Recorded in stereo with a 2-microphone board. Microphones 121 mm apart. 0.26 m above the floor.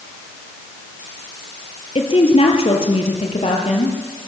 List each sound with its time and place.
1.9 s a woman speaking: 50° left (ahead or behind), 5 m; by 4.0 s 55° left (ahead or behind), 6.5 m